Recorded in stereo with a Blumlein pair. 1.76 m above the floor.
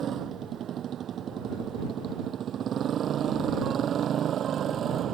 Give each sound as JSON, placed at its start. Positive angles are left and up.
{"t": 0.0, "sound": "a motorcycle", "azimuth_deg": -25}